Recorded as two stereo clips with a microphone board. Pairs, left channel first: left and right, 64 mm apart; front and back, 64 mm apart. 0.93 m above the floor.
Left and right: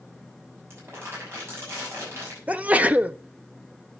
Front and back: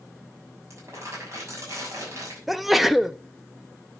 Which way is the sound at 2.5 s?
95° right.